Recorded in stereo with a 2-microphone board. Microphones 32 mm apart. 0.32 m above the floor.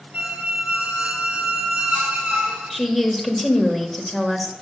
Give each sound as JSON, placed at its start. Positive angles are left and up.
{"t": 0.1, "sound": "a squeak", "side_deg": -45, "distance_m": 1.0}
{"t": 2.7, "sound": "a woman speaking", "side_deg": 5, "distance_m": 1.1}